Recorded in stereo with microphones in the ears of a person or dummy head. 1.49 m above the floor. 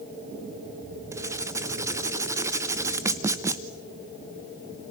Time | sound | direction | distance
1.1 | writing | 20° right (ahead or behind) | 1.0 m